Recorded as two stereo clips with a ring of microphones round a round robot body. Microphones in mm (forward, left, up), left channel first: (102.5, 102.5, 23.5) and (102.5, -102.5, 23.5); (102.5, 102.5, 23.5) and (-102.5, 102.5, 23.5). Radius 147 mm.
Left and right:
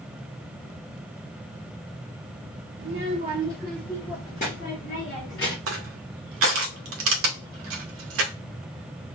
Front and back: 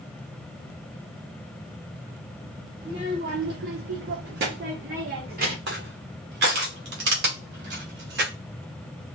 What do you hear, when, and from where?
2.8 s a child speaking: 105° right, 0.6 m; by 5.6 s 135° left, 1.7 m
5.7 s crushing: 125° right, 0.5 m